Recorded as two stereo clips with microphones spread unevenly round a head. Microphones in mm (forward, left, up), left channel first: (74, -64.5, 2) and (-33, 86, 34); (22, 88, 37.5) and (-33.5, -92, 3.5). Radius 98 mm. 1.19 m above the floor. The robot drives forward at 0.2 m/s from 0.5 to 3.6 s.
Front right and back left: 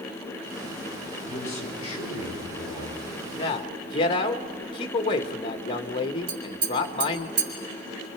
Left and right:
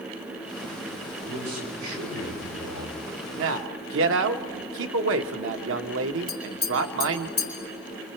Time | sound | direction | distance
1.3 | a man speaking | 115° right | 6.5 m
3.4 | a man speaking | 115° right | 1.1 m
6.3 | tapping | 140° left | 4 m